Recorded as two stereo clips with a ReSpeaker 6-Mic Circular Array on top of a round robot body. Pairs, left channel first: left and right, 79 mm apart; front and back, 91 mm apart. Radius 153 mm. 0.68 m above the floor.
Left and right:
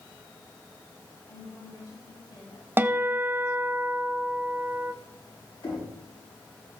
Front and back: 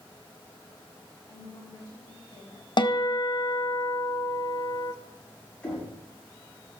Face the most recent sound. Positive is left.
turn(degrees=75)